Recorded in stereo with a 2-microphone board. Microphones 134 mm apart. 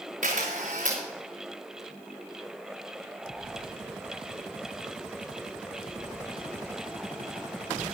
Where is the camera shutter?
85° right, 3 m.